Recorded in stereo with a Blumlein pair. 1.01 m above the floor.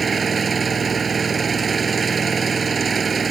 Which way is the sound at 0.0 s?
15° right.